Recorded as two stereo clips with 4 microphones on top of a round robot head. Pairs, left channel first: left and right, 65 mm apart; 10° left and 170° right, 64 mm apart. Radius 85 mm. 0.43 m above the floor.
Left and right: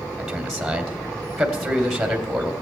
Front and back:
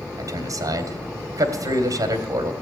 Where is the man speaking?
175° left, 2.0 m.